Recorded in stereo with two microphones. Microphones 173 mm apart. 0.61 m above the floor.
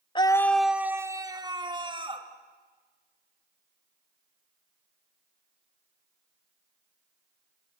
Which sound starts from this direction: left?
A scream, at 0.1 s.